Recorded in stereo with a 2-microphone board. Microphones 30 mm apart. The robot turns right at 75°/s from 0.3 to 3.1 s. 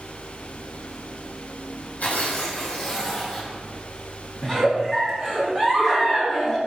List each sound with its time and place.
2.0 s tearing paper: 70° left, 3 m; by 3.6 s 150° left, 3 m
4.4 s a giggle: 5° left (ahead or behind), 1.7 m